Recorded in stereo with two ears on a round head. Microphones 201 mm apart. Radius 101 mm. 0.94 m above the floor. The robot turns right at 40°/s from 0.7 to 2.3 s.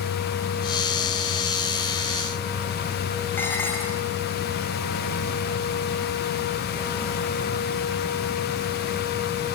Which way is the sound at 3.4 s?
10° left (ahead or behind).